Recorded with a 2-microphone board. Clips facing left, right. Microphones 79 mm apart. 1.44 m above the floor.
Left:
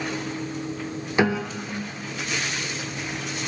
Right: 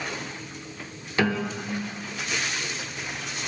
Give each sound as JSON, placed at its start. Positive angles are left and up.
{"t": 1.2, "sound": "a piano", "side_deg": 20, "distance_m": 0.5}